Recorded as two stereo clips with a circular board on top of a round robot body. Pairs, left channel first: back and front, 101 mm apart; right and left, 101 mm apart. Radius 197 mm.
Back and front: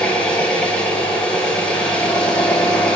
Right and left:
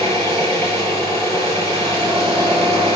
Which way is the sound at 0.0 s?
100° left.